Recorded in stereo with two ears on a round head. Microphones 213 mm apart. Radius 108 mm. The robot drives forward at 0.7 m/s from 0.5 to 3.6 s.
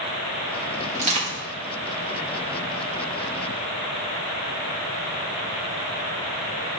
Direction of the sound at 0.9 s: 25° right (ahead or behind).